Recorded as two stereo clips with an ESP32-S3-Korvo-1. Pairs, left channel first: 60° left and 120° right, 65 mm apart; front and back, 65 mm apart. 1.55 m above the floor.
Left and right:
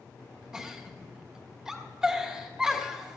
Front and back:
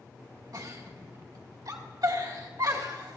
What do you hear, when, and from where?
0.5 s a giggle: 155° left, 2.5 m